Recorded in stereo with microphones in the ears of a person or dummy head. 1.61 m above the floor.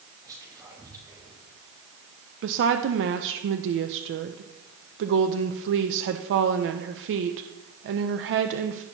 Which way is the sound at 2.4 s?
55° right (ahead or behind).